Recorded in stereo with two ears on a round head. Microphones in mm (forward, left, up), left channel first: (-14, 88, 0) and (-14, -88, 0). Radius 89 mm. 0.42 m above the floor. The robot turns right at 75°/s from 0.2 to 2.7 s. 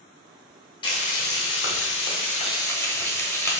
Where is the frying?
25° left, 0.9 m; by 3.6 s 165° left, 0.9 m.